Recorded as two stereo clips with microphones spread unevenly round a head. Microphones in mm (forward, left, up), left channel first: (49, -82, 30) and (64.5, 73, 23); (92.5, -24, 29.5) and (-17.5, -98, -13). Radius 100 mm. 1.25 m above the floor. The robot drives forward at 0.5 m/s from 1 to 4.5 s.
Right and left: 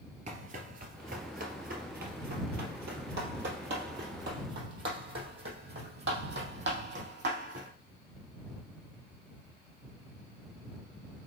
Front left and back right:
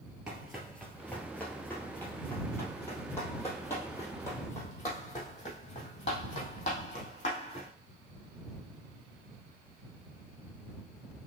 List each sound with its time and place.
0.3 s running footsteps: 105° left, 1.5 m; by 7.7 s 75° left, 4 m